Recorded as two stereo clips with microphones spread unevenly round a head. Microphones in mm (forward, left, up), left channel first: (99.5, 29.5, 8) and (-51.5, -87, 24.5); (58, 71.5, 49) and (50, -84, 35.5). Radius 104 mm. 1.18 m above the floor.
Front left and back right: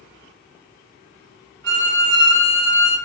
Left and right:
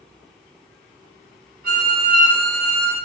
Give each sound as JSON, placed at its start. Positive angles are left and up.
{"t": 1.6, "sound": "a violin", "azimuth_deg": -115, "distance_m": 1.4}